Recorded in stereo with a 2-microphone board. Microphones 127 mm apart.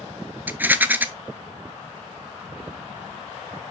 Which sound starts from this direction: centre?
A rattle, at 0.5 s.